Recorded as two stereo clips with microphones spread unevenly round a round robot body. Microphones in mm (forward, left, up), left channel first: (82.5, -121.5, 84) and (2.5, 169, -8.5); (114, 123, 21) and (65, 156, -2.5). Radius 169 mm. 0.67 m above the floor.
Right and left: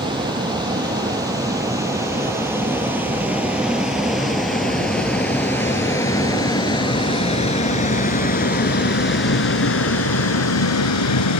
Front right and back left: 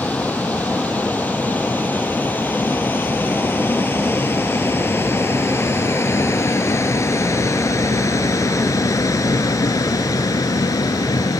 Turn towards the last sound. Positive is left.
turn(degrees=-45)